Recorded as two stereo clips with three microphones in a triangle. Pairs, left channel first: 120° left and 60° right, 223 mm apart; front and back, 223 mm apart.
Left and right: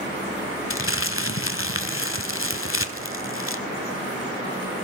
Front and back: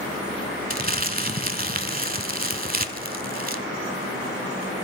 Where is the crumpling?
135° left, 0.6 m.